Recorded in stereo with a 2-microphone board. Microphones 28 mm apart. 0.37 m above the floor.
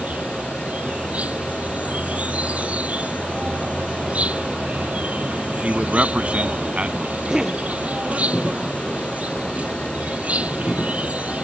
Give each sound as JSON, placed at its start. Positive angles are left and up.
{"t": 0.0, "sound": "an insect", "side_deg": -65}
{"t": 5.6, "sound": "a man speaking", "side_deg": -50}
{"t": 7.3, "sound": "a cough", "side_deg": -25}